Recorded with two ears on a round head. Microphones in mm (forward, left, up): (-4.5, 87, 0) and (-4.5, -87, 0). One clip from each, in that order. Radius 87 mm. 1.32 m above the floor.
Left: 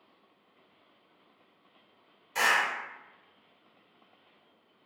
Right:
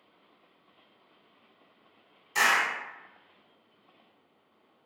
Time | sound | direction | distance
2.4 | a clap | 15° right (ahead or behind) | 1.5 m